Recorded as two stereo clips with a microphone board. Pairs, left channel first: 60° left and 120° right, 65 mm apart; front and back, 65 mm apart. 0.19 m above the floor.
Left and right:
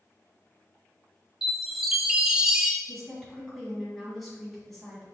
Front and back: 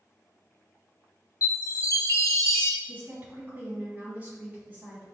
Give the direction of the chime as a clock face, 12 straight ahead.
1 o'clock.